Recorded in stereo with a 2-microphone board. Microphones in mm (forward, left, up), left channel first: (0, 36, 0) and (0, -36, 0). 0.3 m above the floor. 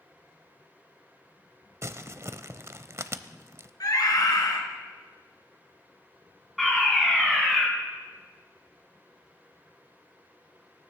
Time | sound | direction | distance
1.8 | crumpling | 40° right (ahead or behind) | 0.6 m
3.8 | a scream | 60° left (ahead or behind) | 4 m
6.6 | a fire alarm | centre (ahead or behind) | 5 m